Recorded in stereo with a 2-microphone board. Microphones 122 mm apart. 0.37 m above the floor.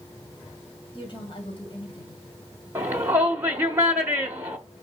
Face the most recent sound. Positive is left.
turn(degrees=-20)  # may be behind; listen again after turning